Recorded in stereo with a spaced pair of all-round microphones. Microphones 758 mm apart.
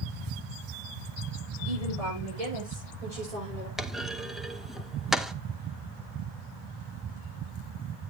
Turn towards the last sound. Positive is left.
turn(degrees=0)  # may be behind; listen again after turning